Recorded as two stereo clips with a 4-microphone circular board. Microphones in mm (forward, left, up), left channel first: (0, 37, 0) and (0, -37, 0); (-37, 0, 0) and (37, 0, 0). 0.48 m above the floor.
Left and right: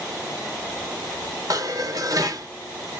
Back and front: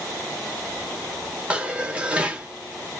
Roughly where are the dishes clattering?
Right.